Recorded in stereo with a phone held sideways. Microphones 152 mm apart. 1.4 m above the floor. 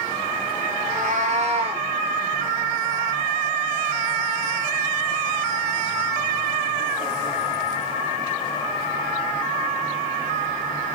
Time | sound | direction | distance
0.8 | a cat meowing | 60° right (ahead or behind) | 1.5 m